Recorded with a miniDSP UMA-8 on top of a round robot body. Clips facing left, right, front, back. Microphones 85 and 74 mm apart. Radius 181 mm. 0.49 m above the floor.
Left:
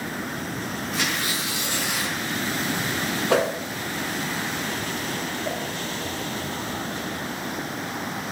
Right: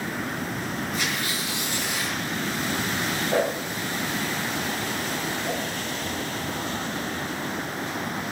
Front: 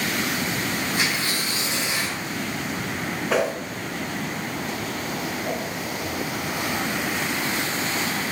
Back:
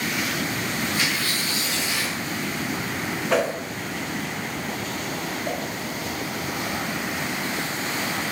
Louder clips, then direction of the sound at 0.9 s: Left 1 dB, front 1 dB; 65° left.